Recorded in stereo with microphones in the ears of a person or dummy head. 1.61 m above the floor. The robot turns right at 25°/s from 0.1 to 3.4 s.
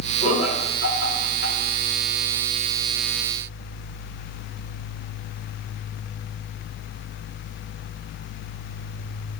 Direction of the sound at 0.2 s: 35° left (ahead or behind).